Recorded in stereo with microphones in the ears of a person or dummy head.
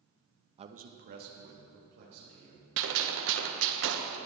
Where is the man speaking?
20° right (ahead or behind), 0.7 m; by 2.7 s 50° right (ahead or behind), 4 m.